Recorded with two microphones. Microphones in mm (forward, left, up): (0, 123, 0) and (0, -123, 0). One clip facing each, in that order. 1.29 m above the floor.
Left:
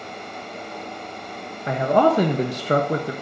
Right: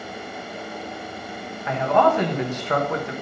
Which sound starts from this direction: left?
A man speaking, at 1.7 s.